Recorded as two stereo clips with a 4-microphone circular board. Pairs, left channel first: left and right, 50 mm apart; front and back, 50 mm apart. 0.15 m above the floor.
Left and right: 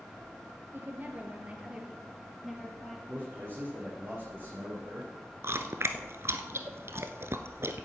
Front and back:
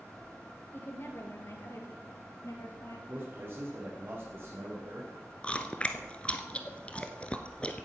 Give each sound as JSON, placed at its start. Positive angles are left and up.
{"t": 0.7, "sound": "a woman speaking", "azimuth_deg": -45, "distance_m": 2.5}
{"t": 3.1, "sound": "a man speaking", "azimuth_deg": -135, "distance_m": 4.0}
{"t": 5.4, "sound": "chewing", "azimuth_deg": -65, "distance_m": 0.9}